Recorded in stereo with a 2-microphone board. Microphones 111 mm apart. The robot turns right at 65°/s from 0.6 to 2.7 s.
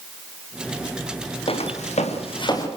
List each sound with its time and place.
1.5 s footsteps: 55° left (ahead or behind), 4.5 m; by 2.7 s 25° left (ahead or behind), 5 m